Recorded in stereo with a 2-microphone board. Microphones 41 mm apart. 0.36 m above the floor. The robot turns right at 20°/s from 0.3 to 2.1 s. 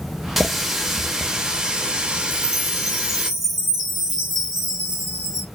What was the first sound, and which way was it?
A running tap, 175° right.